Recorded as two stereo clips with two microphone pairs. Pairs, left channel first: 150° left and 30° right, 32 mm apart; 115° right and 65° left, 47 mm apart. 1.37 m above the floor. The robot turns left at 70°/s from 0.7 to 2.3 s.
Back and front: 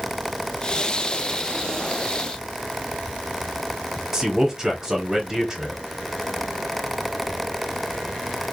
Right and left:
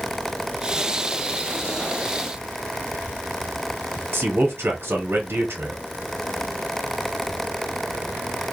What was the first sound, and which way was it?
A man speaking, 40° left.